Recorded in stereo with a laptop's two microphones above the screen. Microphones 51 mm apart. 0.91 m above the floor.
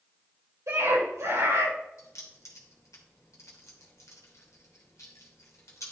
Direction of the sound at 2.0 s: 80° left.